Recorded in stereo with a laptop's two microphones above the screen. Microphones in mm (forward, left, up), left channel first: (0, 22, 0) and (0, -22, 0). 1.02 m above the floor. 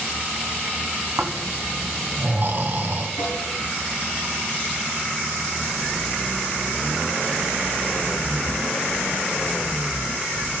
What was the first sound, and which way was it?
Snoring, 45° right (ahead or behind).